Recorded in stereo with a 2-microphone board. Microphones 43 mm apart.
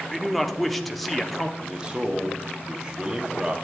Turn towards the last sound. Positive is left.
turn(degrees=-20)  # may be behind; listen again after turning